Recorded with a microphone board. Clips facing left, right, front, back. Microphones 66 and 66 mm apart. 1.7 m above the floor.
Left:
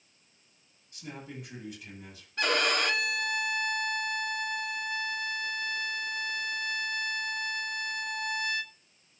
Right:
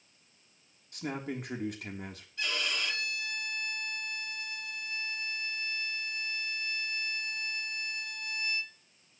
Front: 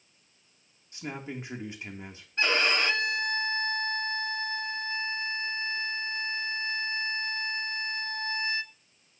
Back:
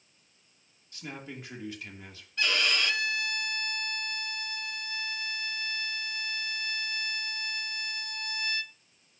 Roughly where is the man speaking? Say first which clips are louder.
Right 6 dB, front 4 dB; ahead right.